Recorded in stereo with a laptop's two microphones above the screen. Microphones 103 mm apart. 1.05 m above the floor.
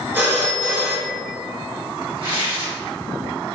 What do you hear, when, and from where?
0.1 s a phone ringing: 20° right (ahead or behind), 1.8 m
2.2 s tearing paper: 55° right (ahead or behind), 1.5 m